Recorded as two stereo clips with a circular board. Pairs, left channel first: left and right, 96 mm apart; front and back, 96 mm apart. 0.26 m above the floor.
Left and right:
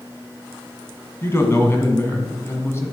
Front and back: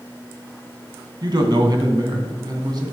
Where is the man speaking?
150° left, 2 m.